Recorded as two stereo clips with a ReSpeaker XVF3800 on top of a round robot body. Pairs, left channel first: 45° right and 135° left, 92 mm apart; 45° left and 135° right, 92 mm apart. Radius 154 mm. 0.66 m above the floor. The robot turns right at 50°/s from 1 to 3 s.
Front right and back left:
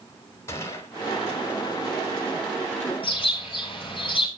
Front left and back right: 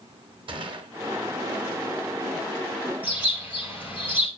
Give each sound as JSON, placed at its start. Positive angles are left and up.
{"t": 0.5, "sound": "a gunshot", "azimuth_deg": -105, "distance_m": 1.3}
{"t": 3.0, "sound": "a bird", "azimuth_deg": -65, "distance_m": 4.5}